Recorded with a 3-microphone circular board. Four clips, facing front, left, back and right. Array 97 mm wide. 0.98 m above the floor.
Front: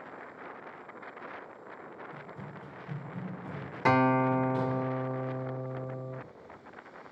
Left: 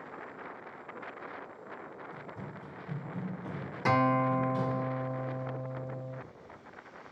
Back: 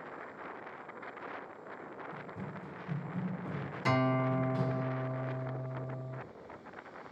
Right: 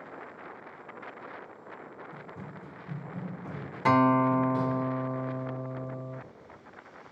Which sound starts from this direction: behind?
Running footsteps, at 2.1 s.